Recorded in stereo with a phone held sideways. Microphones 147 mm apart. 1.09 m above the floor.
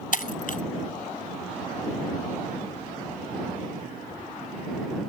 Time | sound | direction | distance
0.1 | breaking glass | 70° left (ahead or behind) | ?